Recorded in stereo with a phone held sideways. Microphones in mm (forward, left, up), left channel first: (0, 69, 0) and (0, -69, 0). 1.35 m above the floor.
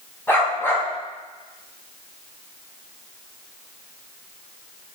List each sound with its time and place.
0.3 s a dog barking: 15° left (ahead or behind), 4 m